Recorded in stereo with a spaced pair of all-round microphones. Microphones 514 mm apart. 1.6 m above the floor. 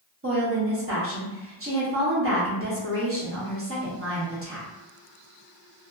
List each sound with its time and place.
0.2 s a woman speaking: 25° right (ahead or behind), 1.0 m